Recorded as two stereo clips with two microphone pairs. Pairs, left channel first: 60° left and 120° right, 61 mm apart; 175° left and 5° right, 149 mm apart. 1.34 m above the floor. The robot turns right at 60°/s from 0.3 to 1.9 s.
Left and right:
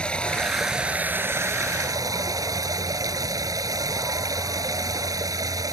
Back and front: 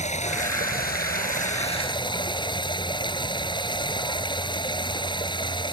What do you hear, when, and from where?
0.0 s running water: 135° left; by 5.7 s 130° right